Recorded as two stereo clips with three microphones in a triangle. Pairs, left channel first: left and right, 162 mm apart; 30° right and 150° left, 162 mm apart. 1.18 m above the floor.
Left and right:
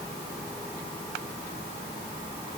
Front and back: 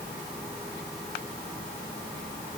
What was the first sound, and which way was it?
Only background noise.